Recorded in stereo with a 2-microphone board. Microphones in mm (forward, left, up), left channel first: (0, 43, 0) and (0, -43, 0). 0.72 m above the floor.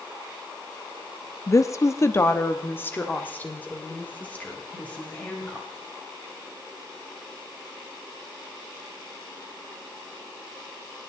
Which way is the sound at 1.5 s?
35° left (ahead or behind).